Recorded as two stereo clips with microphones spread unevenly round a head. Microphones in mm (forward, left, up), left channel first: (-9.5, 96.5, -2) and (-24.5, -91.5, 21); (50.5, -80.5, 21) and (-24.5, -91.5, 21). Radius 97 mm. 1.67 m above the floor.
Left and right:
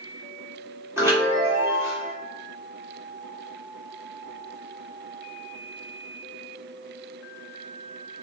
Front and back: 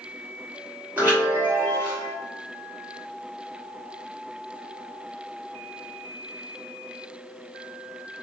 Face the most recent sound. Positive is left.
turn(degrees=-135)